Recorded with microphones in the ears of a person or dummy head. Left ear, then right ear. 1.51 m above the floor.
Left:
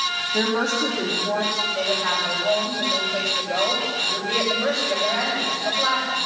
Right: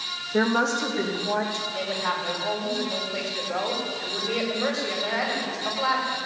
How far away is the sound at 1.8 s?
About 6.5 m.